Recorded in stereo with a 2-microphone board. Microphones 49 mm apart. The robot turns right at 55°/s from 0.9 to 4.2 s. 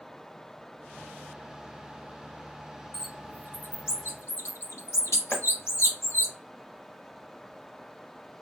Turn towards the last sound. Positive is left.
turn(degrees=35)  # may be behind; listen again after turning